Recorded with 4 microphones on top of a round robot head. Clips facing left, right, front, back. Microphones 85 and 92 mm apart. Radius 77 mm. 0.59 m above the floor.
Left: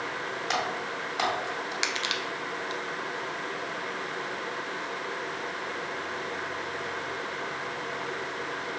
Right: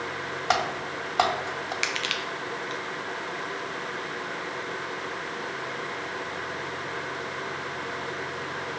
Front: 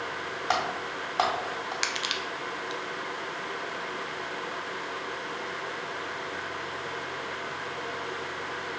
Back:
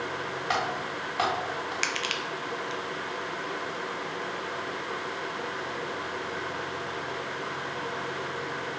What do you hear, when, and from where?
0.5 s typing on a keyboard: 60° right, 1.7 m
1.8 s crushing: 50° left, 1.0 m